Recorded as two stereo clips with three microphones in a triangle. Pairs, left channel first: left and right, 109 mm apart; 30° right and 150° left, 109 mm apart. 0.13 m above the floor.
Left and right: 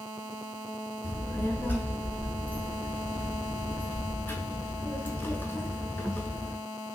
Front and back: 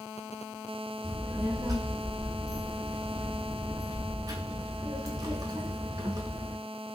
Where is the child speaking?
145° left, 0.7 m.